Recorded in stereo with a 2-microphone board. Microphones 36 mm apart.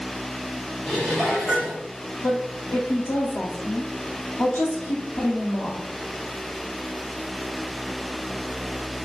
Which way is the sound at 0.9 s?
20° left (ahead or behind).